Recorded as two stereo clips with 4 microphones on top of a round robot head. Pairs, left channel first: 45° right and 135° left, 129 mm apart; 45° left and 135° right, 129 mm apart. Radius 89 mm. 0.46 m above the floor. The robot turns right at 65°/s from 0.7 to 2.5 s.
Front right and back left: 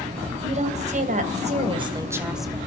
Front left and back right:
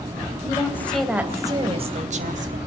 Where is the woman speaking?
110° left, 3.5 m; by 2.6 s 130° right, 3.5 m.